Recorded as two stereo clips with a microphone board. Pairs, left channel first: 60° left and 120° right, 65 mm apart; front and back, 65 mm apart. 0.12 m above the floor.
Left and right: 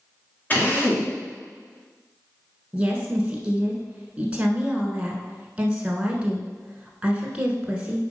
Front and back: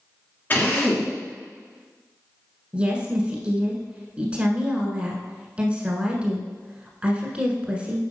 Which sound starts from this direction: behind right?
A woman speaking, at 2.7 s.